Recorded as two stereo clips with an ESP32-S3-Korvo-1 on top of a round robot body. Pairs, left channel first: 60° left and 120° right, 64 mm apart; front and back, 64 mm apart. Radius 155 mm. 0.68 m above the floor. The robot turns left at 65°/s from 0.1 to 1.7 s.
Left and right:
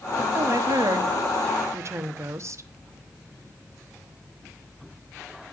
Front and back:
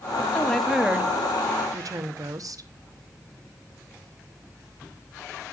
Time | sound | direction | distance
0.3 | a woman speaking | 70° right | 1.2 m